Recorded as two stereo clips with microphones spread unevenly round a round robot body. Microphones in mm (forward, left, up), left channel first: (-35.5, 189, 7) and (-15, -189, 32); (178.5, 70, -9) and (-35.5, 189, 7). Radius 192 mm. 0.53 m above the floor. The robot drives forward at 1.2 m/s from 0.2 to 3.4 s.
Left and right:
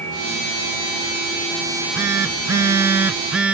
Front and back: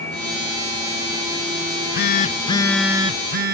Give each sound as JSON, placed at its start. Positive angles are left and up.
{"t": 1.7, "sound": "a phone buzzing", "azimuth_deg": 0}